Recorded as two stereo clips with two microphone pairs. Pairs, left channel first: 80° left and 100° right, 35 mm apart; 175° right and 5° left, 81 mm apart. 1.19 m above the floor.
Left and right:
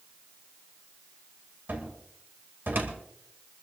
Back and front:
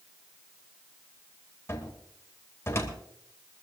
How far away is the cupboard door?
About 2.5 m.